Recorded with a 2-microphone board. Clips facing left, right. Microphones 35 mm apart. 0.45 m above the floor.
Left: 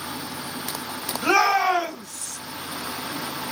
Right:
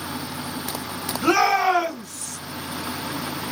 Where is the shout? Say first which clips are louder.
Right 1 dB; 5° left (ahead or behind), 1.8 m; by 2.4 s 5° right (ahead or behind), 3 m.